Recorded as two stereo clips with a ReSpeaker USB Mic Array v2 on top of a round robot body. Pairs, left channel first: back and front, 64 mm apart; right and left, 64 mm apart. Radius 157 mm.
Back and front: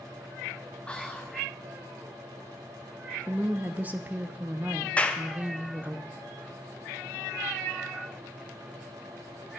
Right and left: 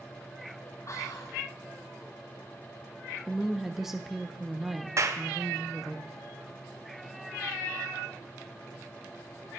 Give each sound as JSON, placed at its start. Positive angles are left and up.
{"t": 0.9, "sound": "whispering", "azimuth_deg": -110, "distance_m": 0.9}
{"t": 3.3, "sound": "a woman speaking", "azimuth_deg": 10, "distance_m": 0.7}
{"t": 5.0, "sound": "a clap", "azimuth_deg": 115, "distance_m": 0.9}